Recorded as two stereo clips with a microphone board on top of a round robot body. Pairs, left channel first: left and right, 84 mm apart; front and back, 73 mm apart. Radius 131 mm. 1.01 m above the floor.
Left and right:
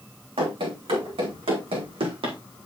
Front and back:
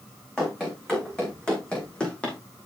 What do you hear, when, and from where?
0.4 s running footsteps: 80° right, 4.5 m; by 2.4 s 75° right, 2 m